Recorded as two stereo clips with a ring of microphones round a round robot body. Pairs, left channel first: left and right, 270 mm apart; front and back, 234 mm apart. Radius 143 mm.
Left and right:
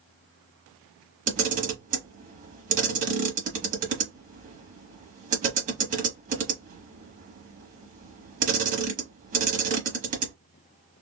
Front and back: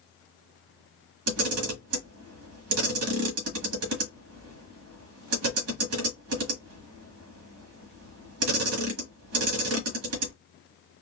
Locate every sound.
1.3 s a camera shutter: 150° right, 1.2 m